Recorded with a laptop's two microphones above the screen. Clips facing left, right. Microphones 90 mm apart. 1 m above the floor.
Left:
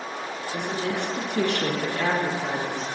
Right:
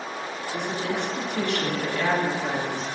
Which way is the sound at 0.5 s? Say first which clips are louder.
Even; 60° left (ahead or behind).